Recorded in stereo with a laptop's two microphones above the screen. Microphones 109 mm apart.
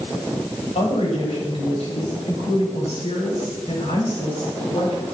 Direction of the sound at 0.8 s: 70° left (ahead or behind).